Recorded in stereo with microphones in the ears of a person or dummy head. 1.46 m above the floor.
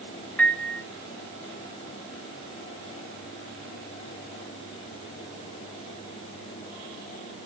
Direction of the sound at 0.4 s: 10° left (ahead or behind).